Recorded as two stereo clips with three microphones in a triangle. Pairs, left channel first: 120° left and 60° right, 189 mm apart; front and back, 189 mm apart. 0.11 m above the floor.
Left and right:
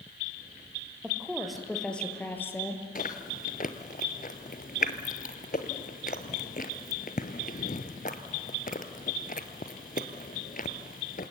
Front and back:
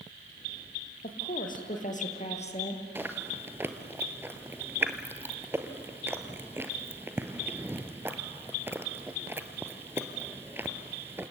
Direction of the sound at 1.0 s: 25° left.